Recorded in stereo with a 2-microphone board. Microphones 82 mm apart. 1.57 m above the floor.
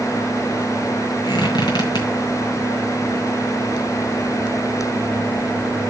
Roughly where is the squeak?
Left.